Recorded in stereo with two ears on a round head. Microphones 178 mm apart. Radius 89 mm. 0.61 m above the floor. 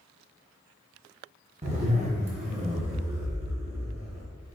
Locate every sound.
1.6 s a zipper: 35° right (ahead or behind), 1.4 m